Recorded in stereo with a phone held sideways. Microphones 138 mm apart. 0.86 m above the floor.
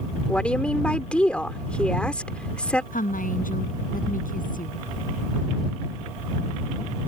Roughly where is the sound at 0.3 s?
Centre.